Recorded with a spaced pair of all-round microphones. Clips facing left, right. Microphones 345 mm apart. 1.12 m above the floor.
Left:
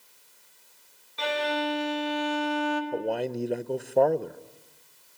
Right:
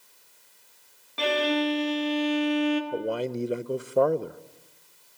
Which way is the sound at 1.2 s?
80° right.